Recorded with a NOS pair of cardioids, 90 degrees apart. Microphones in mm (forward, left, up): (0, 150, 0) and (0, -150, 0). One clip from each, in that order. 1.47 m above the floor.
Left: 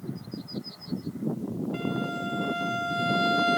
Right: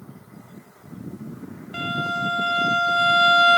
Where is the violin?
30° right, 0.7 m.